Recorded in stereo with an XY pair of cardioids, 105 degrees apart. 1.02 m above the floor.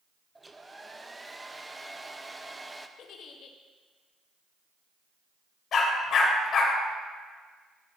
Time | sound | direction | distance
0.3 | a hair dryer | 15° right | 0.6 m
3.0 | a giggle | 70° left | 0.9 m
5.7 | a dog barking | 65° left | 1.6 m